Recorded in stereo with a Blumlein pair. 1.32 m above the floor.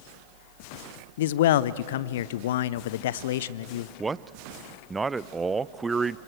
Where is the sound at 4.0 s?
15° right, 0.5 m.